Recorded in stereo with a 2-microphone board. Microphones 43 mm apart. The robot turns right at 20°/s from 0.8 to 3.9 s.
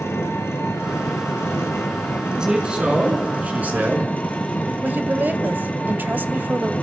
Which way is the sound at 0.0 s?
85° left.